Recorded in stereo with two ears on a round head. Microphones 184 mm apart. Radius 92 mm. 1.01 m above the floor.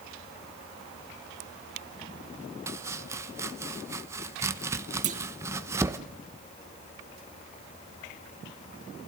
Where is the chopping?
15° right (ahead or behind), 0.9 m.